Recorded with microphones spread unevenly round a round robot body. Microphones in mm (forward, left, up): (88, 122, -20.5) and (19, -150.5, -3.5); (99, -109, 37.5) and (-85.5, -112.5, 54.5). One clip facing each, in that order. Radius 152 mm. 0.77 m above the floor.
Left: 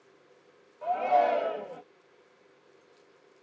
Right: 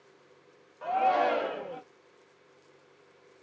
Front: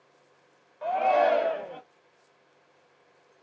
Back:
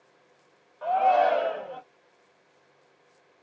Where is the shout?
55° right, 1.1 m.